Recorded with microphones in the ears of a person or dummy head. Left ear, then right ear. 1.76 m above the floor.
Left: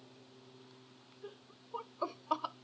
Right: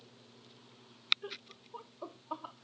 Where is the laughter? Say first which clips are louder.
Right 6 dB; 40° right (ahead or behind), 0.9 m; by 2.5 s 85° left, 1.2 m.